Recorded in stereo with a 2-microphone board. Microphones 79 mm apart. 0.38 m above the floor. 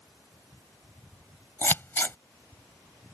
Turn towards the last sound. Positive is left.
turn(degrees=30)  # may be behind; listen again after turning